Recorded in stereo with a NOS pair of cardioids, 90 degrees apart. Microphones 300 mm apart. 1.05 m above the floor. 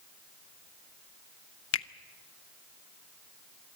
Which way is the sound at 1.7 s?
45° left.